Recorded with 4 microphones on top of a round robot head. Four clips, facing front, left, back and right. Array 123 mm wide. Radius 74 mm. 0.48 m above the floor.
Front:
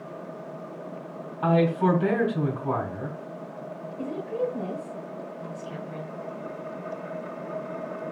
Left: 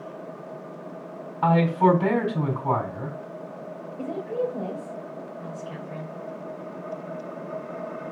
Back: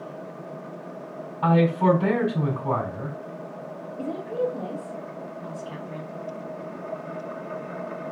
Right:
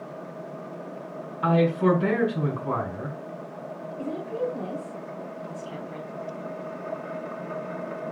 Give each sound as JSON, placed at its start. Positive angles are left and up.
{"t": 1.4, "sound": "a man speaking", "azimuth_deg": 100, "distance_m": 4.0}
{"t": 4.0, "sound": "a woman speaking", "azimuth_deg": 120, "distance_m": 3.0}